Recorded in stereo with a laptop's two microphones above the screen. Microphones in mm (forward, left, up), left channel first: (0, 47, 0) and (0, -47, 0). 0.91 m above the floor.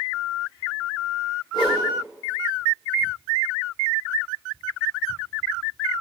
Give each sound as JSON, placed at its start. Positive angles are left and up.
{"t": 1.5, "sound": "a whoosh", "side_deg": 55, "distance_m": 2.0}